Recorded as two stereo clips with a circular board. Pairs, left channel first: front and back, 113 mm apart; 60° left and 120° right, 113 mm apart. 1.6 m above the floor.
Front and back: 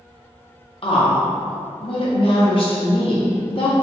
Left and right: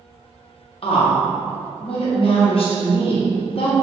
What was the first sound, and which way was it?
A woman speaking, 30° left.